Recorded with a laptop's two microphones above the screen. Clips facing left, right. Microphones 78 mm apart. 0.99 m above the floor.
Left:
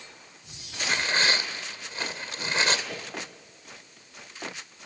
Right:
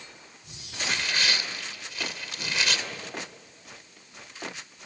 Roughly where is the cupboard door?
No cupboard door in this recording.